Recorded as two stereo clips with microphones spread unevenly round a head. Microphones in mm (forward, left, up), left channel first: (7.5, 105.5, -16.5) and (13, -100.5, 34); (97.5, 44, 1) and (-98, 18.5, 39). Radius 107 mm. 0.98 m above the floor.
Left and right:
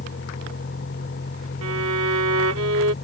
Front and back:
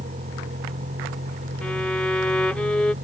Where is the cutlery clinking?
I don't hear cutlery clinking.